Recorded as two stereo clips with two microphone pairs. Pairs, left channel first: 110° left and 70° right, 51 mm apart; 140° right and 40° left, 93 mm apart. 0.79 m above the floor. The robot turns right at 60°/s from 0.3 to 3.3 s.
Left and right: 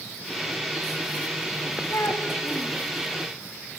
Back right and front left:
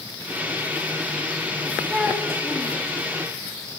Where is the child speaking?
140° left, 3.5 m; by 2.8 s 165° right, 3.5 m.